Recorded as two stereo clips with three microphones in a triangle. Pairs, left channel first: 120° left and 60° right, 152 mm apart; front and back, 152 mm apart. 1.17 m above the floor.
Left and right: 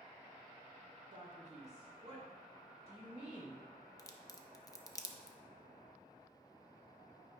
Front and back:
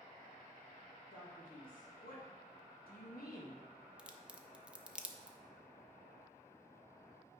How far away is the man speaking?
About 1.6 m.